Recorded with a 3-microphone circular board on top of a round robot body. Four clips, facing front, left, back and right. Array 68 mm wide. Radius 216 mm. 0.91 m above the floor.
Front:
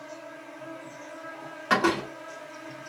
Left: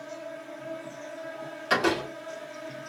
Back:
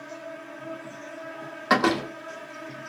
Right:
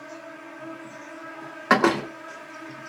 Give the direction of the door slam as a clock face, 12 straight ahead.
3 o'clock.